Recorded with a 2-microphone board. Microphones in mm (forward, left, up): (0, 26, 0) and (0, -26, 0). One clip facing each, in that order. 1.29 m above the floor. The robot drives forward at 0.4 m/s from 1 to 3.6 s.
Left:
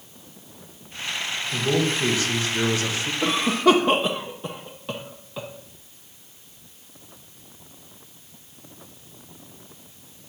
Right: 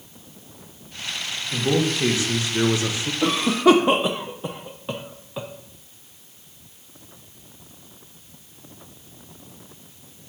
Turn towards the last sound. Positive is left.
turn(degrees=-10)  # may be behind; listen again after turning